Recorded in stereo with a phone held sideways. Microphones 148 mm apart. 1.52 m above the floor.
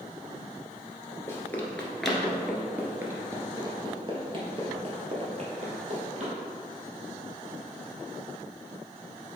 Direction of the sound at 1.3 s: 15° left (ahead or behind).